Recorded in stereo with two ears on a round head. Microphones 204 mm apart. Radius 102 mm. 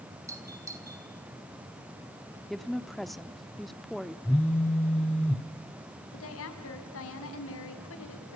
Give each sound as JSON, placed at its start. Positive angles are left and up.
{"t": 0.3, "sound": "a doorbell", "side_deg": -15, "distance_m": 5.0}
{"t": 2.5, "sound": "a woman speaking", "side_deg": 0, "distance_m": 0.9}
{"t": 4.2, "sound": "a phone buzzing", "side_deg": 5, "distance_m": 1.0}
{"t": 6.1, "sound": "a woman speaking", "side_deg": 65, "distance_m": 5.0}